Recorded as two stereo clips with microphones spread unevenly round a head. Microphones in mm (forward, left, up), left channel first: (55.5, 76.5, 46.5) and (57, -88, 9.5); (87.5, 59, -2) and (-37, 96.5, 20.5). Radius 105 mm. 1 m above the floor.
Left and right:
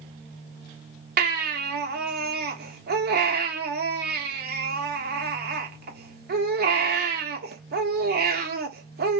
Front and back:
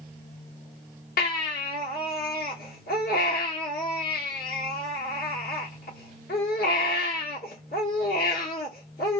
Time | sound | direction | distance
1.2 | a baby crying | 60° right | 1.0 m